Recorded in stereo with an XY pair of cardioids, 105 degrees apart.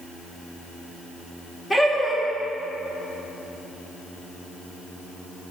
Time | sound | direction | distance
1.7 | laughter | 25° left | 3.5 m